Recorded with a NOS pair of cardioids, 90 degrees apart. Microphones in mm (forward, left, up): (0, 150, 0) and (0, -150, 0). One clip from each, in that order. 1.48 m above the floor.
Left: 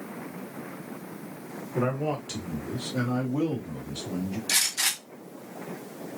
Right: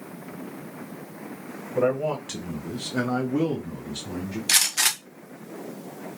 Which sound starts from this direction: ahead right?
A gunshot, at 4.5 s.